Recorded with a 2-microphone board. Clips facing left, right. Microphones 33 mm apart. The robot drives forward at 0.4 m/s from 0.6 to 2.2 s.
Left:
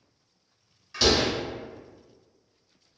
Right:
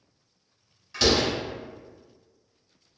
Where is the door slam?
Centre (ahead or behind), 1.5 m.